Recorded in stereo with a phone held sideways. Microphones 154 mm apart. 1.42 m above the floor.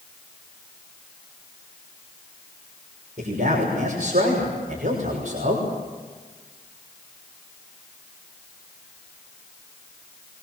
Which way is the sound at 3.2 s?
75° right (ahead or behind).